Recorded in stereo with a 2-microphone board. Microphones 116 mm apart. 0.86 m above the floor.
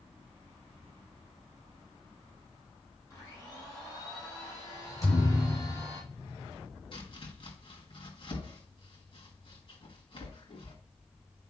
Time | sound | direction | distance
3.1 | a blender | 30° left (ahead or behind) | 5 m
5.0 | a thud | 25° left (ahead or behind) | 5.5 m
6.9 | chopping | 50° left (ahead or behind) | 1.9 m